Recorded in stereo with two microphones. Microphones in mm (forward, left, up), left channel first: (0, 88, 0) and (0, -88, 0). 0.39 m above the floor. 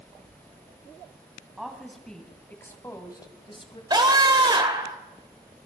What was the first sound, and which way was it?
A woman speaking, 5° right (ahead or behind).